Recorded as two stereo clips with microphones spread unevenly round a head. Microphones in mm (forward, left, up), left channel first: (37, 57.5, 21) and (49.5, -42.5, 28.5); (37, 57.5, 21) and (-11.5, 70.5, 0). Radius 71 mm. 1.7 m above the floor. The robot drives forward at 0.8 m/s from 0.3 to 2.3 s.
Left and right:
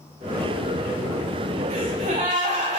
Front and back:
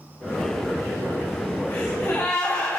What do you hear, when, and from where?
1.7 s a gasp: 85° right, 5 m; by 2.8 s 90° right, 5 m